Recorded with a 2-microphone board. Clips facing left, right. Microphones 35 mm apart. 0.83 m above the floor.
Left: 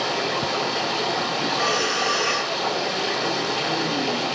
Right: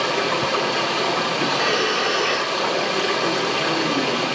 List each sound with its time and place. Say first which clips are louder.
0.0 s running water: right 3 dB; 50° right (ahead or behind), 7.5 m
1.5 s breathing: right 1 dB; 30° right (ahead or behind), 2.5 m